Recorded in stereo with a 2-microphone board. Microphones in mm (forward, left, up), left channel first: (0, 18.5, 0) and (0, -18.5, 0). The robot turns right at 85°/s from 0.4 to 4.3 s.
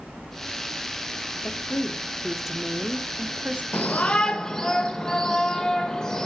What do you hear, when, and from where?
1.4 s a woman speaking: 100° left, 1.1 m; by 3.6 s 75° right, 1.1 m
3.7 s a shout: 115° left, 1.6 m; by 6.3 s 160° left, 1.6 m